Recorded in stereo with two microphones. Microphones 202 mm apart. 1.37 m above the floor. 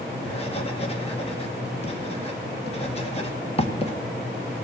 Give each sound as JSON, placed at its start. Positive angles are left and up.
{"t": 0.2, "sound": "writing", "side_deg": 30, "distance_m": 1.6}